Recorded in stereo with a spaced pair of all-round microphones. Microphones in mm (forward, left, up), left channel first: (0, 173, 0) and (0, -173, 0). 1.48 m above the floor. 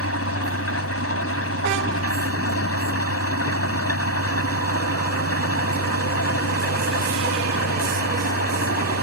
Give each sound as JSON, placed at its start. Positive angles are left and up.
{"t": 0.0, "sound": "an engine running", "side_deg": 45}